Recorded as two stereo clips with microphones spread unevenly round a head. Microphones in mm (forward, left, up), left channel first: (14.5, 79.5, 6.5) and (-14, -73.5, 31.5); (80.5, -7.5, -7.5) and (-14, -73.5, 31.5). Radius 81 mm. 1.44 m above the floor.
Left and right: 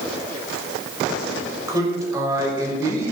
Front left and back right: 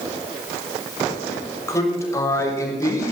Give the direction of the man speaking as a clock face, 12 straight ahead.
1 o'clock.